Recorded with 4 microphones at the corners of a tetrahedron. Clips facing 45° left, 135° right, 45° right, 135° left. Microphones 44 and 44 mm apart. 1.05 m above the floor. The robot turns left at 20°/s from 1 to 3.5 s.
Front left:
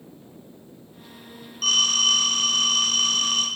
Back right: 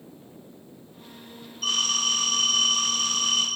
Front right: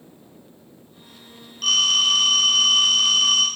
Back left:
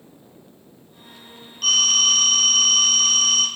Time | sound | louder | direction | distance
1.6 | a phone ringing | front left 5 dB, even | 50° left | 3.5 m